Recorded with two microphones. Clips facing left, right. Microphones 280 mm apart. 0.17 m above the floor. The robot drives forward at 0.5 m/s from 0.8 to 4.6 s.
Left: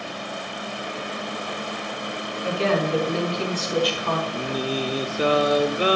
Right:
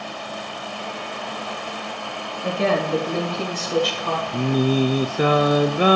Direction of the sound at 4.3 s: 55° right (ahead or behind).